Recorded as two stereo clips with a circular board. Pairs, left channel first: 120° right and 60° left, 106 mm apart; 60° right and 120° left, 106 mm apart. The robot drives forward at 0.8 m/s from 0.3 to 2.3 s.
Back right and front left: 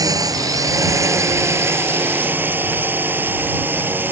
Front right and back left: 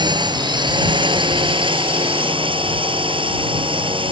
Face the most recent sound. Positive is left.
turn(degrees=125)